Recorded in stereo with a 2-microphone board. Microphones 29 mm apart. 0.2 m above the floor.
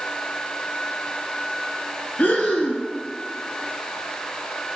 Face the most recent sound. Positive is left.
turn(degrees=70)  # may be behind; listen again after turning